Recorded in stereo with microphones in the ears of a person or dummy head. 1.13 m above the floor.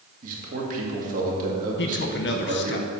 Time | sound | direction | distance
0.2 | a man speaking | 45° right (ahead or behind) | 2 m
1.8 | a man speaking | 50° left (ahead or behind) | 0.8 m